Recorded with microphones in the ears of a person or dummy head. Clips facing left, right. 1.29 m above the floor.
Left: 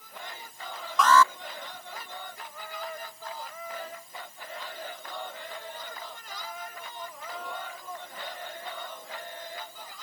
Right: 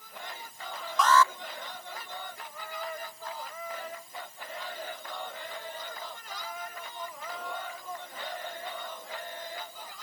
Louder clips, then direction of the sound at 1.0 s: Left 2 dB; 60° left (ahead or behind).